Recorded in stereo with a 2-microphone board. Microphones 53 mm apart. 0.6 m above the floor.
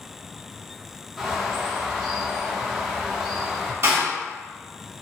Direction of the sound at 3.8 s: 60° right (ahead or behind).